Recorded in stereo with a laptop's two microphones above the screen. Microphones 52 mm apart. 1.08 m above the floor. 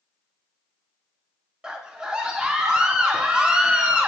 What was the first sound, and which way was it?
A scream, 15° right (ahead or behind).